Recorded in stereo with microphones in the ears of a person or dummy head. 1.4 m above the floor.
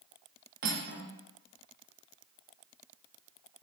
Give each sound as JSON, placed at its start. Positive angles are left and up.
{"t": 0.6, "sound": "cutlery clinking", "side_deg": -50, "distance_m": 0.7}